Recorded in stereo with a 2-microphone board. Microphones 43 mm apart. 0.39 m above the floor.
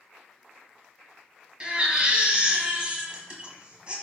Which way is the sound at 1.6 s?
25° right (ahead or behind).